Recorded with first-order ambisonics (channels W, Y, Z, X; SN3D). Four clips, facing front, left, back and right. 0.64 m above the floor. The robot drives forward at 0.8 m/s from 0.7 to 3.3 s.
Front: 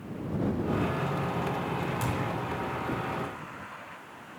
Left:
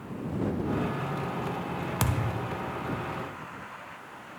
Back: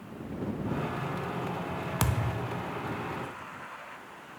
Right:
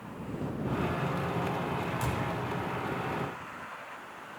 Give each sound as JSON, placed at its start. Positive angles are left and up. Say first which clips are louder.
{"t": 2.0, "sound": "a thud", "louder": "left 2 dB, front 1 dB", "azimuth_deg": 130, "distance_m": 0.6}